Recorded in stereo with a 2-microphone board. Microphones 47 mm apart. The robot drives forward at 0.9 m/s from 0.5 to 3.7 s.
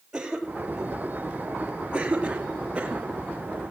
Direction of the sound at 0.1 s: 15° right (ahead or behind).